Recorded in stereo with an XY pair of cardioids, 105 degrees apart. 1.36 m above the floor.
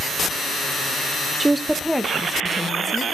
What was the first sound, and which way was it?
A woman speaking, 20° right.